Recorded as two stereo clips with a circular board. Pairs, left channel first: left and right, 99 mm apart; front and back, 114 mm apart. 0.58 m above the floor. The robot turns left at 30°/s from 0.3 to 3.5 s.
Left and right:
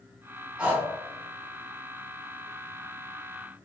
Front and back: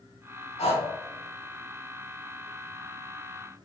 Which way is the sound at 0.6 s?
10° right.